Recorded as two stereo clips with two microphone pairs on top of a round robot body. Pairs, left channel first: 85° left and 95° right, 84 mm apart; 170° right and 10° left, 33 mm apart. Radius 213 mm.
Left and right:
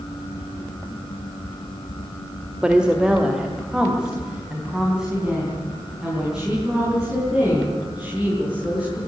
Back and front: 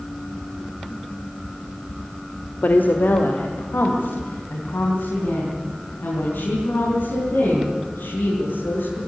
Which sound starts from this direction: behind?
A woman speaking, at 2.6 s.